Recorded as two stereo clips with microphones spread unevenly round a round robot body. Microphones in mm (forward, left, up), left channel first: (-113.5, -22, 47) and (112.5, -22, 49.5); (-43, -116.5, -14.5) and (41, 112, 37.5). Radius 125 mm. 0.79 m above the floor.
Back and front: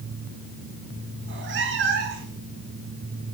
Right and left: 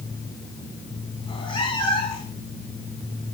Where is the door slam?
I don't hear a door slam.